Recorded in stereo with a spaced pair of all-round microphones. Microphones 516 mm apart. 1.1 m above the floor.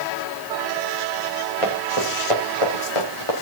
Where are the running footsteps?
80° left, 7 m; by 3.3 s 75° left (ahead or behind), 6.5 m.